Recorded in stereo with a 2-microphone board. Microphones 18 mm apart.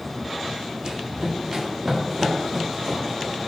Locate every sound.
0.8 s running footsteps: 50° right (ahead or behind), 5 m; by 3.5 s 35° right (ahead or behind), 4.5 m